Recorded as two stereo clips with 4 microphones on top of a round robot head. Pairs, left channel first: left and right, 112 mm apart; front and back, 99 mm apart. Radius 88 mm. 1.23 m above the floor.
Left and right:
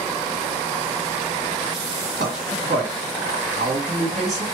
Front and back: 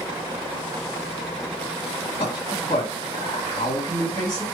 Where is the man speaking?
55° right, 2 m.